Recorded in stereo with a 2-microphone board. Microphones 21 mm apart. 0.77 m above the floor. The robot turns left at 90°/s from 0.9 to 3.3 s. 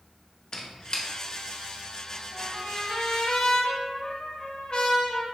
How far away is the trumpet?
About 0.7 m.